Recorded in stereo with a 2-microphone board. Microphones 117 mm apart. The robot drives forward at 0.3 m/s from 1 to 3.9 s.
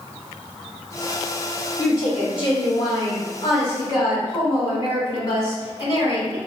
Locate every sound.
1.8 s a woman speaking: 50° left (ahead or behind), 1.9 m; by 6.4 s 40° left (ahead or behind), 2 m